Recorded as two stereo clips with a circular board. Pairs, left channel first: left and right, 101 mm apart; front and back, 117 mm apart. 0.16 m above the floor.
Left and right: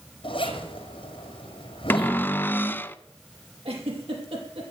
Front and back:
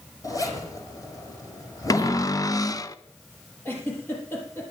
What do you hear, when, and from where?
0.2 s a zipper: 60° left, 3.5 m
1.9 s a cupboard door: 30° left, 0.7 m
3.6 s a giggle: 70° right, 5 m